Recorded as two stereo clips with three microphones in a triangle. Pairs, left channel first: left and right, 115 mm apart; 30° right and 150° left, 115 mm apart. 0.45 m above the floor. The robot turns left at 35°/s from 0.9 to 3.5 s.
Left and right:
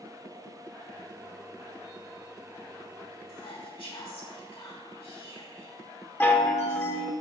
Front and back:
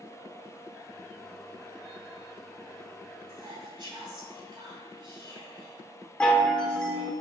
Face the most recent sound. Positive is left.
turn(degrees=45)